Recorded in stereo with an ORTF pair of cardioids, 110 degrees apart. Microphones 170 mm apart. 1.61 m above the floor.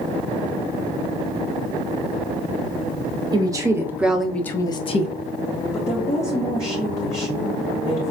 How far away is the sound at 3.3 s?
About 1.1 m.